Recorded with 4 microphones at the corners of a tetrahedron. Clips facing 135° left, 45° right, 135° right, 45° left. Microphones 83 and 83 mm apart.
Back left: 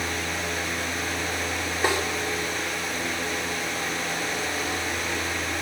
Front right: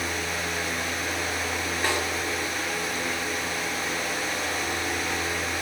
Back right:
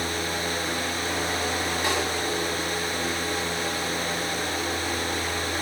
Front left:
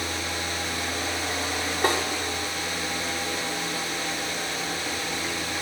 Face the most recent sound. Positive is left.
turn(degrees=65)